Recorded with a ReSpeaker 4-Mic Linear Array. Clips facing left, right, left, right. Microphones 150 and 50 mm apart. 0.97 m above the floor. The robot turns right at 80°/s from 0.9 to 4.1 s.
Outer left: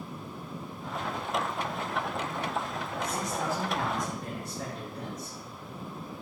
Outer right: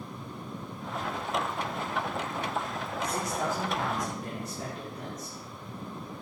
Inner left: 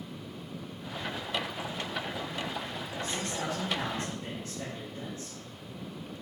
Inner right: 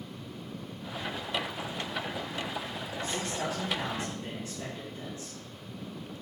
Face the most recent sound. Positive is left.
turn(degrees=120)